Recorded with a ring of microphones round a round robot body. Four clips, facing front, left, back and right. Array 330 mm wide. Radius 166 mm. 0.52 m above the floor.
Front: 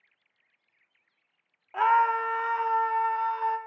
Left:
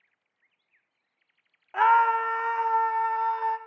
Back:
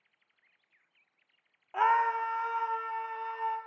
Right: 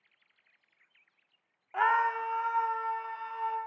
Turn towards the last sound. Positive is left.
turn(degrees=50)